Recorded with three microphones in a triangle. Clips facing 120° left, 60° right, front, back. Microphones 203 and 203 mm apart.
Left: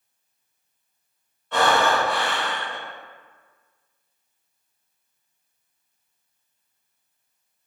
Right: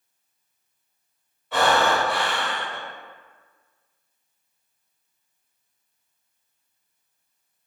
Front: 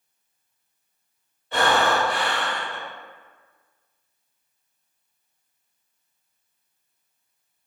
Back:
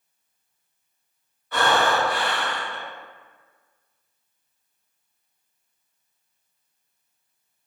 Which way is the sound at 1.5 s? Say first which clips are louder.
Even, even; 20° left.